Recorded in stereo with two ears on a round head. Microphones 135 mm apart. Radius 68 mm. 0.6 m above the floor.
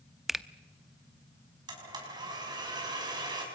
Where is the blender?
30° right (ahead or behind), 5.5 m.